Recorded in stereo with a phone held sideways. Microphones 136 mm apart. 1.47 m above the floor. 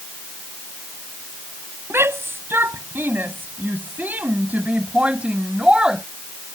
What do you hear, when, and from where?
1.9 s a shout: 15° right (ahead or behind); by 6.0 s 5° right (ahead or behind)